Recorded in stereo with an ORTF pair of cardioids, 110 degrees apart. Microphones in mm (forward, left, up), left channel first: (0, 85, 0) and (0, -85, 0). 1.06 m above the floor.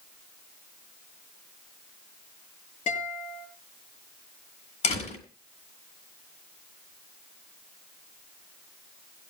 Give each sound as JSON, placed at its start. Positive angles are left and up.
{"t": 2.9, "sound": "a guitar", "azimuth_deg": 45, "distance_m": 7.5}
{"t": 4.8, "sound": "a door slam", "azimuth_deg": 40, "distance_m": 7.5}